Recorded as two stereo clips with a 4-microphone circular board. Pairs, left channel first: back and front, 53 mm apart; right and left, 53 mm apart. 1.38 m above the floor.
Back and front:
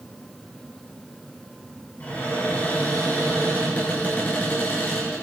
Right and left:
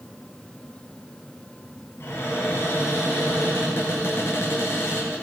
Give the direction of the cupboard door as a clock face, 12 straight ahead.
4 o'clock.